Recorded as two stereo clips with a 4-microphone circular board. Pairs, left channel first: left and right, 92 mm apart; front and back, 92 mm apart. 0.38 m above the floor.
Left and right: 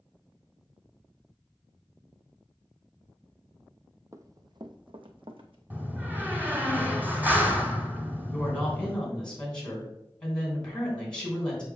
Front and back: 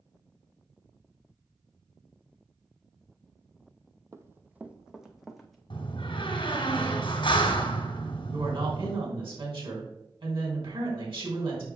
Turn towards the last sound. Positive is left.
turn(degrees=170)